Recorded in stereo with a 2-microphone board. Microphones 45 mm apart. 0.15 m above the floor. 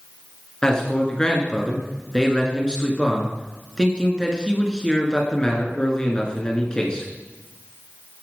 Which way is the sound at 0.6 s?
15° left (ahead or behind).